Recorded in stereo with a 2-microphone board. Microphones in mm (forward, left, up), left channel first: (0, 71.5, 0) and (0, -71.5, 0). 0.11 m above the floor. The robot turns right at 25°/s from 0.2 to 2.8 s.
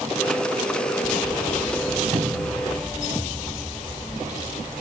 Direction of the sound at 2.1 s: 70° right (ahead or behind).